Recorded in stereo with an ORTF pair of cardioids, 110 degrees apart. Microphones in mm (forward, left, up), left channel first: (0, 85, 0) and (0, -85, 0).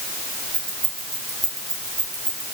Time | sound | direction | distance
0.5 | keys jangling | 20° right | 6.5 m